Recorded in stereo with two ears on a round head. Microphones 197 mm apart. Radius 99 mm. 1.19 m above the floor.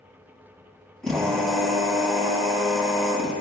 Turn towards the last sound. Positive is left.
turn(degrees=5)  # may be behind; listen again after turning